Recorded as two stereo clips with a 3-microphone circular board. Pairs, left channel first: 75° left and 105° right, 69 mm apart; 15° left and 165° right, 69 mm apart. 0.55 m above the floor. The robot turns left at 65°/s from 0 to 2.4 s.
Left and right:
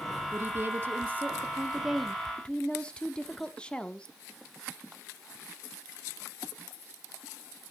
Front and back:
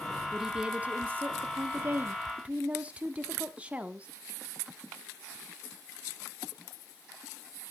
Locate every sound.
0.3 s a woman speaking: 85° right, 1.1 m; by 4.1 s 140° left, 1.1 m